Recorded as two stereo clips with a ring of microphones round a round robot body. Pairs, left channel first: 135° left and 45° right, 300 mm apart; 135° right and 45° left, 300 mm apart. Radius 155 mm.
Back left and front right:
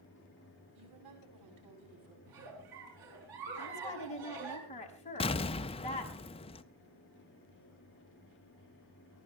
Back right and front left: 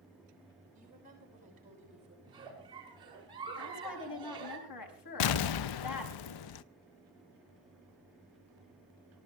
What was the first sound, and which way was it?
A woman speaking, 20° right.